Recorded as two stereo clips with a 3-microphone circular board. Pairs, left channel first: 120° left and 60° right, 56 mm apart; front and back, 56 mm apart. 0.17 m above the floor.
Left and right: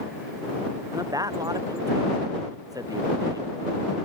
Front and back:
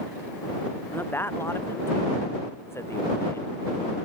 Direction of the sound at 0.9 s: 55° right.